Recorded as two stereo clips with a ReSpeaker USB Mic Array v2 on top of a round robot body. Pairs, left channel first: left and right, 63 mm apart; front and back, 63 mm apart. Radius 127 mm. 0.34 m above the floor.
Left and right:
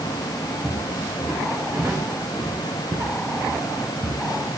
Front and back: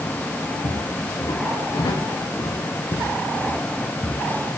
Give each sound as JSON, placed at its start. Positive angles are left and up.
{"t": 0.6, "sound": "footsteps", "azimuth_deg": 0, "distance_m": 2.0}